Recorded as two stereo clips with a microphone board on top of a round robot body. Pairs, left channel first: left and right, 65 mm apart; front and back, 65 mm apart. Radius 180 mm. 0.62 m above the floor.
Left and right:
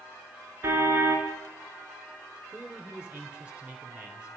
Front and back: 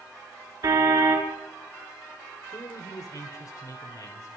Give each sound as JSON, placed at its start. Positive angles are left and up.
{"t": 0.6, "sound": "a car horn", "azimuth_deg": -145, "distance_m": 4.5}
{"t": 2.5, "sound": "a man speaking", "azimuth_deg": -20, "distance_m": 3.0}